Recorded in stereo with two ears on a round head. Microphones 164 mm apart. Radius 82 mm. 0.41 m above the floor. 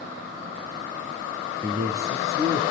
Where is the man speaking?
25° right (ahead or behind), 7 m.